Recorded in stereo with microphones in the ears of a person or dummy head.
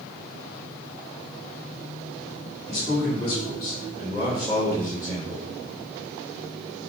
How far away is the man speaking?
About 2.5 m.